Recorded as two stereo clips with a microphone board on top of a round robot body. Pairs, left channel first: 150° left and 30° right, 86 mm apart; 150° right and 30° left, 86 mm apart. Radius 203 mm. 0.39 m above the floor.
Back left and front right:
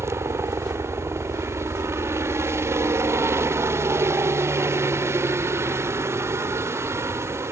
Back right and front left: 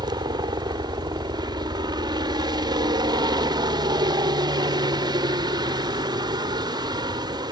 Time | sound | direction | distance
0.0 | a helicopter | 20° left | ?